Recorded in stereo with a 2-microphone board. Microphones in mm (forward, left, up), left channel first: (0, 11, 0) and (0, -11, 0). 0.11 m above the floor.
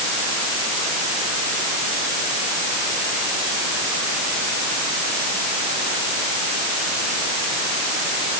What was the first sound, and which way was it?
Only background noise.